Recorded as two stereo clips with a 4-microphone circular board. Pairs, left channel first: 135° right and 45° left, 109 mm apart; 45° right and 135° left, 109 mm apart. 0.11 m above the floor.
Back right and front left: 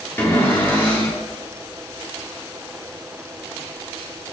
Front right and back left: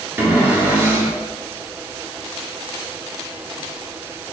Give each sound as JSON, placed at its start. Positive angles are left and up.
{"t": 0.2, "sound": "a cupboard door", "azimuth_deg": 175, "distance_m": 1.3}